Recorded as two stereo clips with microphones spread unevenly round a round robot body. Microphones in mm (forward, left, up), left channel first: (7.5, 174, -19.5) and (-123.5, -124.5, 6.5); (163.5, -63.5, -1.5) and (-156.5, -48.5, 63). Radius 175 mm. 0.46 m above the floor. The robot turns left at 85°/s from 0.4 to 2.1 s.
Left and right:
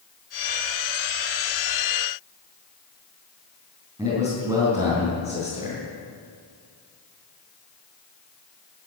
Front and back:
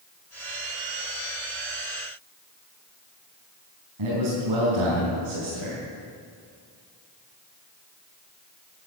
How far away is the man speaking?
About 5 m.